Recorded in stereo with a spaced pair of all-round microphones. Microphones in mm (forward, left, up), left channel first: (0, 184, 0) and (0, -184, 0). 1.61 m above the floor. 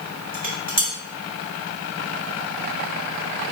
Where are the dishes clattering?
25° right (ahead or behind), 1.0 m.